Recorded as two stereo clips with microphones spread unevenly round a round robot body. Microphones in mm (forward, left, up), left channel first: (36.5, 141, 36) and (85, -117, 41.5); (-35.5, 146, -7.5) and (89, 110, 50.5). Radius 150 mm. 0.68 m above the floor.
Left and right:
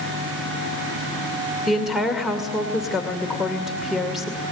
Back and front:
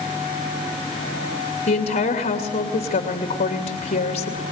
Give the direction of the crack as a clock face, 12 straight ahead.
No crack in this recording.